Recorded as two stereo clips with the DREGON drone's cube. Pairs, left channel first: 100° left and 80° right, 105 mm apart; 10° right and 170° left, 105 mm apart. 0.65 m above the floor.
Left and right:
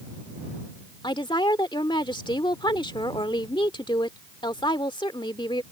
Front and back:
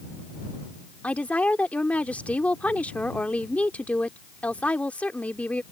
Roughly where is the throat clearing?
No throat clearing in this recording.